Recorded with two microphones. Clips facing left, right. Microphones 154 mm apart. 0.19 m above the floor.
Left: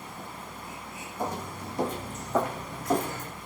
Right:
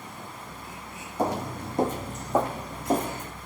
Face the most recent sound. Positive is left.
turn(degrees=-20)  # may be behind; listen again after turning